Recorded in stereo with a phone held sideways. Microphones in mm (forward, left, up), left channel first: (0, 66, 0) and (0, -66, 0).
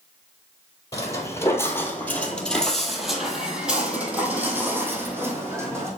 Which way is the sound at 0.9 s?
25° left (ahead or behind).